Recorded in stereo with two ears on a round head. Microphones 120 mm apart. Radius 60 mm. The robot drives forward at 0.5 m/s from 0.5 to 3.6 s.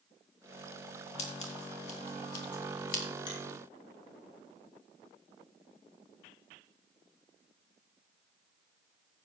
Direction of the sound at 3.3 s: 35° left (ahead or behind).